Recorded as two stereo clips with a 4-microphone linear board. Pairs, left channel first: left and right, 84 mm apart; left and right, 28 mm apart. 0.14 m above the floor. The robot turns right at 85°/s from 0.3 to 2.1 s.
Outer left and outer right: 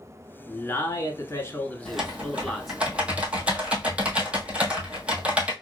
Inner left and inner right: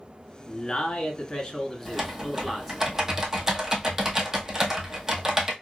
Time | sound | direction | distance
0.5 | a man speaking | 35° left | 1.2 m
1.9 | typing on a keyboard | 10° left (ahead or behind) | 1.1 m